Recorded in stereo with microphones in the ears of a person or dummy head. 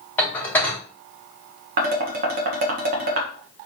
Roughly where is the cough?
No cough in this recording.